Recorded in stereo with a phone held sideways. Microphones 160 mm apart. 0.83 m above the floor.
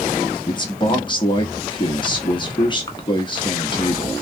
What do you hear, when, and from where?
0.5 s a man speaking: 30° left (ahead or behind), 1.0 m